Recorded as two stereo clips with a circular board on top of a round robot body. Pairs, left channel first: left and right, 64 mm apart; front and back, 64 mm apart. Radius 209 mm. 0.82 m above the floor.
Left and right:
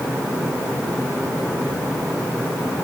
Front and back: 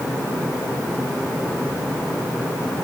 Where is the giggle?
I don't hear a giggle.